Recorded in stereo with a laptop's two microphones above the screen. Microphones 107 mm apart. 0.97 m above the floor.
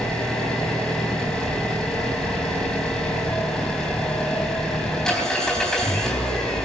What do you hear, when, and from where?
0.0 s an engine running: 5° left (ahead or behind), 3.5 m